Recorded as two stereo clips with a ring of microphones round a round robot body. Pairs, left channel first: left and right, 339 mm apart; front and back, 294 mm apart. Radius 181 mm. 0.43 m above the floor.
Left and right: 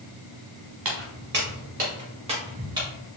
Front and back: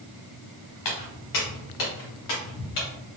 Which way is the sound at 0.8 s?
35° right.